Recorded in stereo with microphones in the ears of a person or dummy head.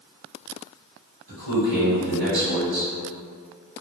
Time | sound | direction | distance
1.3 | a man speaking | 55° right (ahead or behind) | 1.4 m